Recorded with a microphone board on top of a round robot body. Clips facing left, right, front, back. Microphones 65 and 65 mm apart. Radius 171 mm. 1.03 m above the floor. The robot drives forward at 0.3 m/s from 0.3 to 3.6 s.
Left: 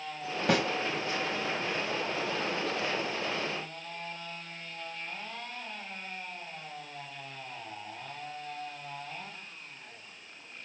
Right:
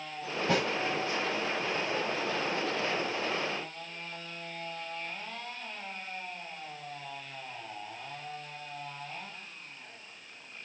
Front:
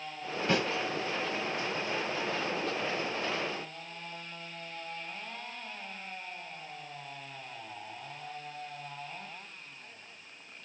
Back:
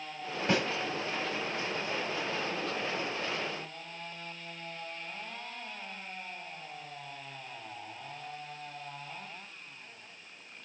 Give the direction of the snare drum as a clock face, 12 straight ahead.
8 o'clock.